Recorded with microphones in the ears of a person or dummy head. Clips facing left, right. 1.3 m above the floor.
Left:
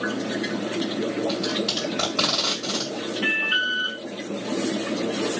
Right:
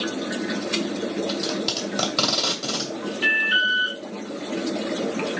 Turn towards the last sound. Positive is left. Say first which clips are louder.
# even
turn(degrees=-15)  # may be behind; listen again after turning